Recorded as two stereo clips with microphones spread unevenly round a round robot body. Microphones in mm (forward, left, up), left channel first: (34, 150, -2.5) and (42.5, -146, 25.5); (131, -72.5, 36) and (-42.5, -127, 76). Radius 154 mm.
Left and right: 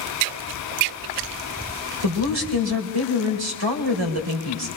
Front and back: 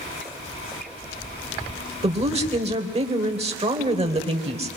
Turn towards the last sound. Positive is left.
turn(degrees=-105)